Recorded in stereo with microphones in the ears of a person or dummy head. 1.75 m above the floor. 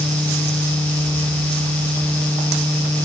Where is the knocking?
I don't hear knocking.